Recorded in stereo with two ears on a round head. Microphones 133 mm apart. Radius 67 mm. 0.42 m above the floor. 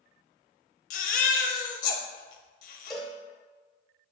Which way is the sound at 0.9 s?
55° left (ahead or behind).